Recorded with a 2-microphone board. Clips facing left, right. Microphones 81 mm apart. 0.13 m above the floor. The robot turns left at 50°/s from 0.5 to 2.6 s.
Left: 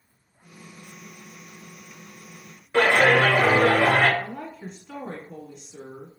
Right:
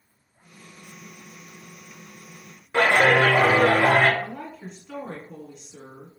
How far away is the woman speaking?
About 1.0 m.